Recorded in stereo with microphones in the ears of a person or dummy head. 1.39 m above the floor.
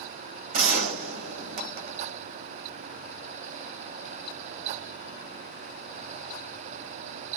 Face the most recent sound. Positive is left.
turn(degrees=-55)  # may be behind; listen again after turning